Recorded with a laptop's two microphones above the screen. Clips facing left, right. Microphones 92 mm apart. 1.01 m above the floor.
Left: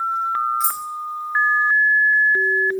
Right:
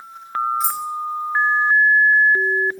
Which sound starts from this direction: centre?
Keys jangling, at 0.6 s.